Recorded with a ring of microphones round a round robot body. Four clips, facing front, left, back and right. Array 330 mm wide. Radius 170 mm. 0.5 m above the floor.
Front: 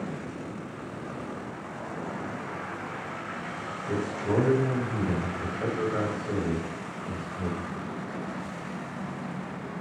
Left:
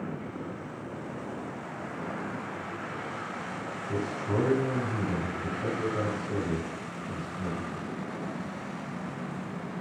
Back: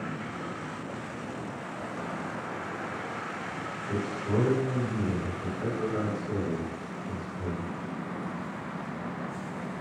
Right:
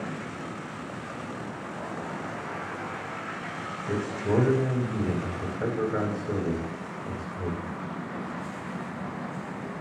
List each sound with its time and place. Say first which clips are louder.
3.9 s a man speaking: right 4 dB, front 3 dB; 70° right, 3 m